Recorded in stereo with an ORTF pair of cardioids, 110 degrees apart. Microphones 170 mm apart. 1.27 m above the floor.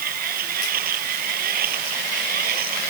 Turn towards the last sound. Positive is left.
turn(degrees=-60)